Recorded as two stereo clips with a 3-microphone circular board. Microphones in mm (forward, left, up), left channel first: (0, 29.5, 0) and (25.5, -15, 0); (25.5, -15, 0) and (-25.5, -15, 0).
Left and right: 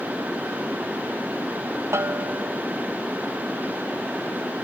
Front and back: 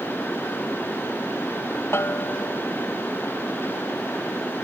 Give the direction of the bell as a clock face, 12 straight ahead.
1 o'clock.